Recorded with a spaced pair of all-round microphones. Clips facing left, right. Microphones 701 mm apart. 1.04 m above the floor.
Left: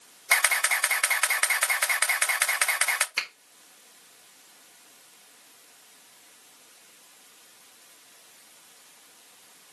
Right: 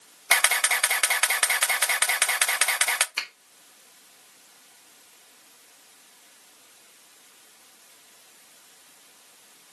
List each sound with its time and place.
0.3 s a camera shutter: 60° right (ahead or behind), 0.7 m
3.2 s a finger snap: 15° left (ahead or behind), 1.7 m